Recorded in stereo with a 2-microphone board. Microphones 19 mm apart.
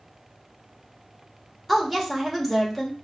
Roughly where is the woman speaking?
Centre.